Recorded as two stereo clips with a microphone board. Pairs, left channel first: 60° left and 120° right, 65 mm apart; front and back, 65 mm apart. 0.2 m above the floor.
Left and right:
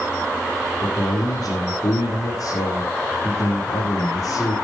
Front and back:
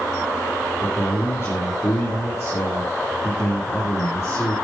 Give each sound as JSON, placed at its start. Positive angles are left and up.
{"t": 0.8, "sound": "a man speaking", "azimuth_deg": 45, "distance_m": 7.0}